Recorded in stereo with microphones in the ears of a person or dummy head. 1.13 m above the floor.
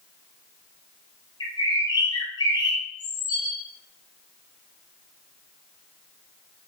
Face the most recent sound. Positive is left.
turn(degrees=20)  # may be behind; listen again after turning